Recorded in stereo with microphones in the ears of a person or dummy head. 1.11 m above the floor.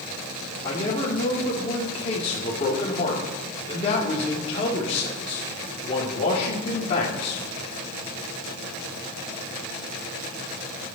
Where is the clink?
I don't hear a clink.